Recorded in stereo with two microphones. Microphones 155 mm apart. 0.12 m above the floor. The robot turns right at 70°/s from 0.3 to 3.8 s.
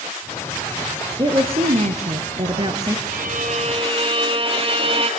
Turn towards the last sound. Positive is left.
turn(degrees=-40)